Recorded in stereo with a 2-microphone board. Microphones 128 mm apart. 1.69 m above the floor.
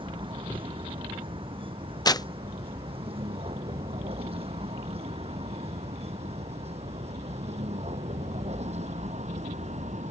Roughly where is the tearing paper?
Left.